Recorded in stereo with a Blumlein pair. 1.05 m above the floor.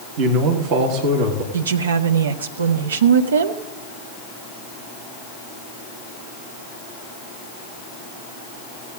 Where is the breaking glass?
I don't hear breaking glass.